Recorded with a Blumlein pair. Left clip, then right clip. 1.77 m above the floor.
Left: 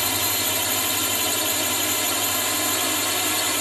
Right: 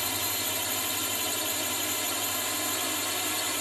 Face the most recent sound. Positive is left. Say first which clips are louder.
# left 7 dB
turn(degrees=20)